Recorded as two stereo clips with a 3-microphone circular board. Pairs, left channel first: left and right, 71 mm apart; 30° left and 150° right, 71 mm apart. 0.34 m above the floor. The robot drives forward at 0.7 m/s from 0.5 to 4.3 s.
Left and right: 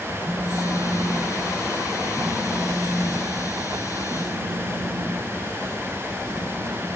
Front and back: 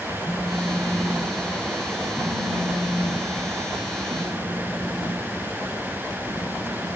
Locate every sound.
0.2 s a phone buzzing: 85° right, 2.5 m; by 6.9 s 140° right, 3.5 m